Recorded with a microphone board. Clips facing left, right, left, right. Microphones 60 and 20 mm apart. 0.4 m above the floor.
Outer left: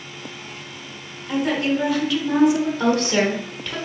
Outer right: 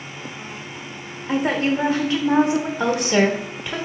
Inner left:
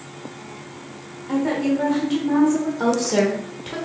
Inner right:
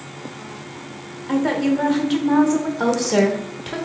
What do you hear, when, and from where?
1.3 s a woman speaking: 30° right (ahead or behind), 0.9 m
2.8 s a woman speaking: 15° right (ahead or behind), 1.1 m